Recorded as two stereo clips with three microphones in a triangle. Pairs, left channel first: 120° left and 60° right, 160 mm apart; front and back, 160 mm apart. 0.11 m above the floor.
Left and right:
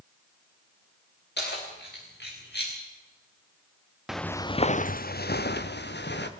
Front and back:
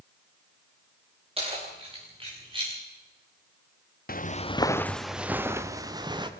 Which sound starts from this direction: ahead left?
Footsteps, at 4.1 s.